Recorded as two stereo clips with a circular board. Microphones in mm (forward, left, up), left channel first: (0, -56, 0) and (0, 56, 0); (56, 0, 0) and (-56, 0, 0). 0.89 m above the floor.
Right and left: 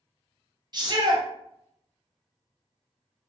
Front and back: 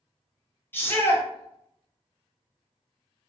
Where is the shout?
65° left, 0.9 m.